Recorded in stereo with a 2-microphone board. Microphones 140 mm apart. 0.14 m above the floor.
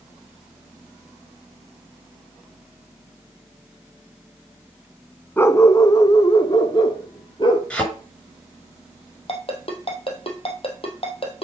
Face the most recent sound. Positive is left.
turn(degrees=45)  # may be behind; listen again after turning